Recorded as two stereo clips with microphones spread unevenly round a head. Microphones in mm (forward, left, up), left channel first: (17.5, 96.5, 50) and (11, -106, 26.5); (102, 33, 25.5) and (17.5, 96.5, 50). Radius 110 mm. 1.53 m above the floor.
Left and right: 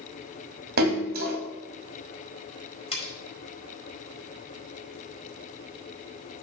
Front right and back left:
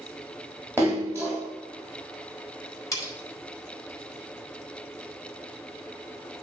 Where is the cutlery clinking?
25° left, 4 m.